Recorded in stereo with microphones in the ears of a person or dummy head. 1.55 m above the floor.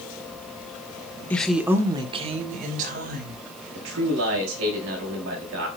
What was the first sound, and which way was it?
A woman speaking, 10° left (ahead or behind).